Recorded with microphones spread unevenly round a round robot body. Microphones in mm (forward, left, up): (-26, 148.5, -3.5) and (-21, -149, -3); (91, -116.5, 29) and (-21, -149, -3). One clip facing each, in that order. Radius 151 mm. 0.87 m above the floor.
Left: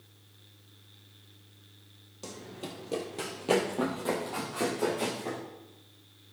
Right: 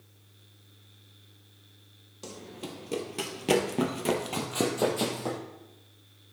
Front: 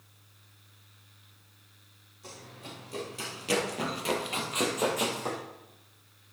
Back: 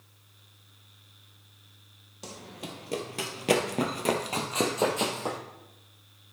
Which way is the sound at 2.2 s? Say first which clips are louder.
Right 1 dB, back 5 dB; 175° right.